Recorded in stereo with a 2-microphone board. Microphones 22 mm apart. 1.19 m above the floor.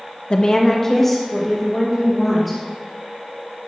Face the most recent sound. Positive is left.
turn(degrees=0)  # may be behind; listen again after turning